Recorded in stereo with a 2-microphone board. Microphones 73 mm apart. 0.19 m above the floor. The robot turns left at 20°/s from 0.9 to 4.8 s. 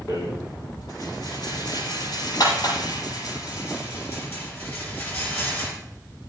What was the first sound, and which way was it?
A rattle, 70° left (ahead or behind).